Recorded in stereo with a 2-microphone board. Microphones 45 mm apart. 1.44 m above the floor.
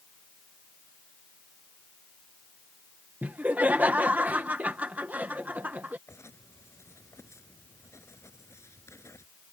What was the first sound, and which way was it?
Laughter, 35° right (ahead or behind).